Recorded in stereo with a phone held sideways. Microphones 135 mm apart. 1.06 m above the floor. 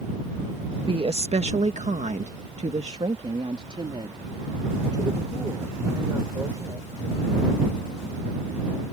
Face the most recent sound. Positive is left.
turn(degrees=-25)  # may be behind; listen again after turning